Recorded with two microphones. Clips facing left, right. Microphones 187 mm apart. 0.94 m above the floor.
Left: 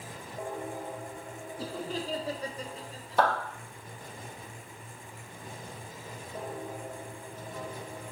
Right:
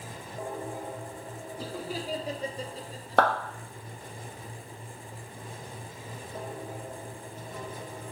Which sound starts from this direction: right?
A clap, at 3.2 s.